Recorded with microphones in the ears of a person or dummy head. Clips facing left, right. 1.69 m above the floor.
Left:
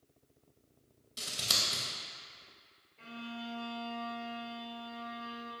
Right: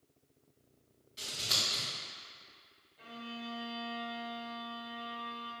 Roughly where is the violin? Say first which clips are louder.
Left 1 dB; left.